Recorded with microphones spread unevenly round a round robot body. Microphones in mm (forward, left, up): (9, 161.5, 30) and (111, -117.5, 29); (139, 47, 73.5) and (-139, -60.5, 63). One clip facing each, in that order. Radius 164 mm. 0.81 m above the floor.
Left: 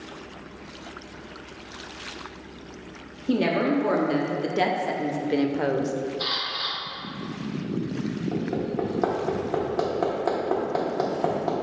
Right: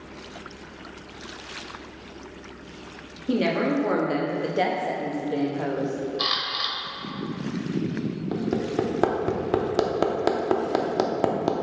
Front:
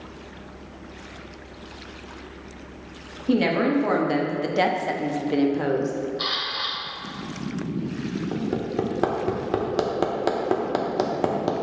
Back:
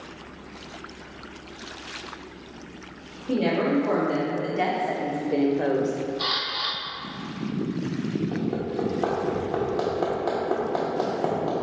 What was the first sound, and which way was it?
A woman speaking, 15° left.